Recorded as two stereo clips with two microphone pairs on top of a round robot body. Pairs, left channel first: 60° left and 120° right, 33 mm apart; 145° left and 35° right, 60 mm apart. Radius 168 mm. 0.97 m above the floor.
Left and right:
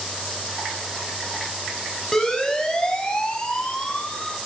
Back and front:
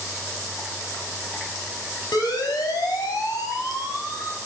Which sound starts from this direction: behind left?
A siren, at 2.1 s.